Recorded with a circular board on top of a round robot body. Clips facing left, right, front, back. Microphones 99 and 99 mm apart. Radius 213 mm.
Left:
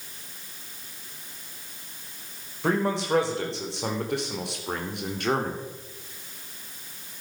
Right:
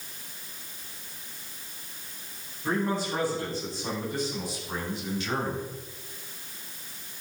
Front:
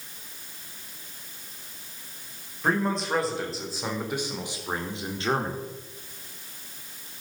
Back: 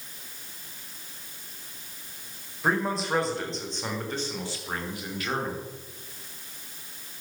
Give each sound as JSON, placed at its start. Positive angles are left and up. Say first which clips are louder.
{"t": 2.6, "sound": "a man speaking", "louder": "left 3 dB, front 1 dB", "azimuth_deg": 95, "distance_m": 4.5}